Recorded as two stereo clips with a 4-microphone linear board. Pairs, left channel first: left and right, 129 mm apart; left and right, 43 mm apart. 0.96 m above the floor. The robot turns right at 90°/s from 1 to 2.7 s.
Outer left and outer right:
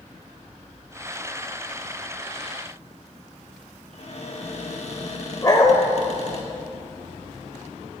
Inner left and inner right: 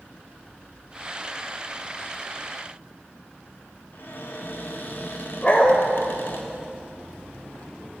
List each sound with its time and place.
3.9 s a cupboard door: 55° left (ahead or behind), 1.3 m
5.4 s a dog barking: 30° left (ahead or behind), 1.2 m